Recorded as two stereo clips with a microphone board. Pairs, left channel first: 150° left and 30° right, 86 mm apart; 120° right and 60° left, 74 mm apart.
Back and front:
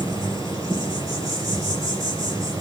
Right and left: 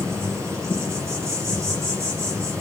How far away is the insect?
About 4.5 m.